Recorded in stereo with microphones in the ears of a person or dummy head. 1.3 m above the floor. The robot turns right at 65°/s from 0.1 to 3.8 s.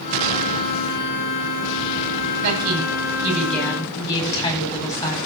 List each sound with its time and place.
2.4 s a woman speaking: 65° right, 9.5 m; by 5.2 s 25° left, 9.5 m